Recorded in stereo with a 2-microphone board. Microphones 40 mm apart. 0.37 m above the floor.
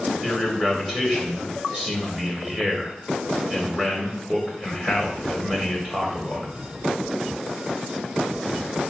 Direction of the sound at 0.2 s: 15° right (ahead or behind).